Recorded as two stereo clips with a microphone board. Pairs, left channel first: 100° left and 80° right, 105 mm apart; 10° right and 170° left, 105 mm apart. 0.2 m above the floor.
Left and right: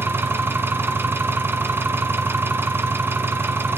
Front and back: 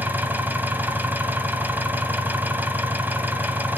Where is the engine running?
130° right, 1.3 m.